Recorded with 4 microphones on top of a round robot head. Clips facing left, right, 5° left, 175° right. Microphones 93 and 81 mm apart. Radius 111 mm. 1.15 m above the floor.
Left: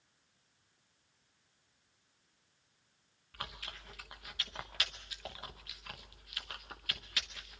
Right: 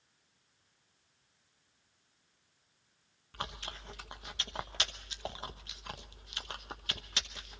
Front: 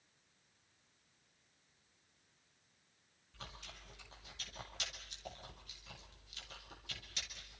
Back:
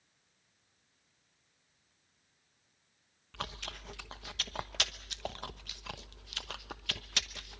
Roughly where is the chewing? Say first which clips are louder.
Right 4 dB, back 11 dB; behind right.